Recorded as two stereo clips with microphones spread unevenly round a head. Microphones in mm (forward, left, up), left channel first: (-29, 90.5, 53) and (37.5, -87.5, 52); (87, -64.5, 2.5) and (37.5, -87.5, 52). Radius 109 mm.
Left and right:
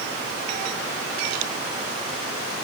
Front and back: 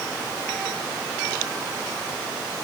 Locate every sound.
Only background noise.